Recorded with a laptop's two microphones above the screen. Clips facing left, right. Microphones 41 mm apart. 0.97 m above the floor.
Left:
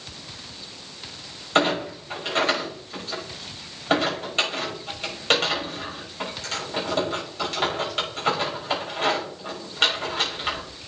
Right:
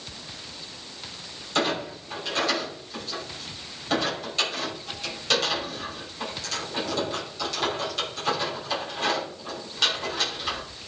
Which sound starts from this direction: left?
A clunk, at 1.6 s.